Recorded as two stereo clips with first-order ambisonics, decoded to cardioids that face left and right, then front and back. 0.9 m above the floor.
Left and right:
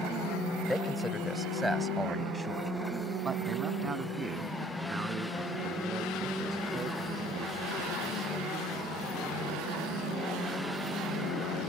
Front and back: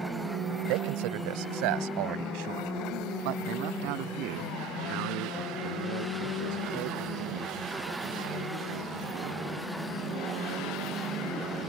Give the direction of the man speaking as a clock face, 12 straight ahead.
6 o'clock.